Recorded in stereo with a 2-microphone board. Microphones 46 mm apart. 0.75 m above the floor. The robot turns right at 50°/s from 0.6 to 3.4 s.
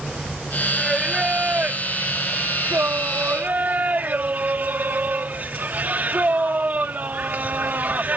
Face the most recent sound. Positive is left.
turn(degrees=-50)